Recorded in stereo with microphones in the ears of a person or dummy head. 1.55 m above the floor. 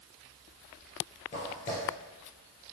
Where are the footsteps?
25° left (ahead or behind), 1.7 m.